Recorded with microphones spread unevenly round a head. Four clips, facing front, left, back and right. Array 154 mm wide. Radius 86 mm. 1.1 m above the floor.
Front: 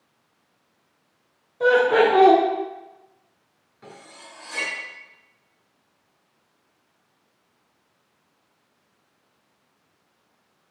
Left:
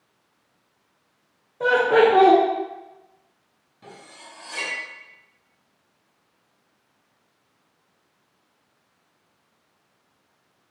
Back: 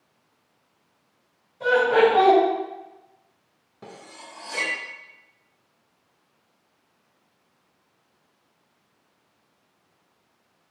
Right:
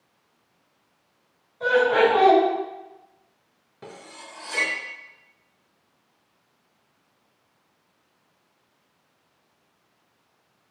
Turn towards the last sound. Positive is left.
turn(degrees=-140)